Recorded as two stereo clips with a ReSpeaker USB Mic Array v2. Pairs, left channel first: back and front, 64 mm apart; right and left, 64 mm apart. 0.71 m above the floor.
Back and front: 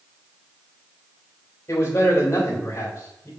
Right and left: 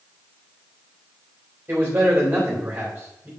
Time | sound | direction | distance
1.7 | a man speaking | 145° left | 3.5 m